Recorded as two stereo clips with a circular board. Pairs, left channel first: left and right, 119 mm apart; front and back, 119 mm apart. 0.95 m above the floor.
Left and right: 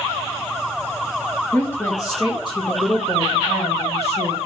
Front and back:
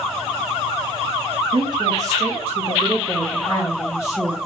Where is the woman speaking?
165° left, 1.0 m; by 4.4 s 75° left, 1.9 m.